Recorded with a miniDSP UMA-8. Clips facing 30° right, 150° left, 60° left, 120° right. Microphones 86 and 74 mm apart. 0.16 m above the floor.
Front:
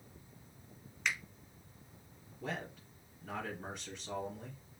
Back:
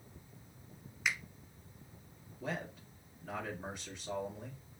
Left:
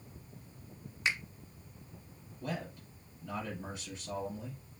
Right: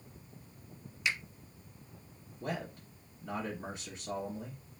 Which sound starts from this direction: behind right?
A man speaking, at 2.4 s.